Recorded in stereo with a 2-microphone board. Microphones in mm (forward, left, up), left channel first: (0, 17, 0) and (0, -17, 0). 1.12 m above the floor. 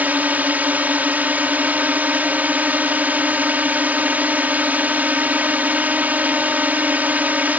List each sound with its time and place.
0.0 s a drone: 60° right (ahead or behind)